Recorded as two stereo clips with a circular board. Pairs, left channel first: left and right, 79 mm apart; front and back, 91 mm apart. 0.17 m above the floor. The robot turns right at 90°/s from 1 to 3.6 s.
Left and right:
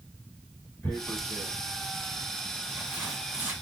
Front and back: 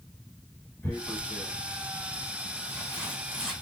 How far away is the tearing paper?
About 1.3 m.